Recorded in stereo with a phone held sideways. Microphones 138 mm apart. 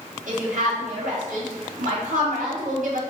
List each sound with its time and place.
0.3 s a woman speaking: 70° right (ahead or behind), 1.5 m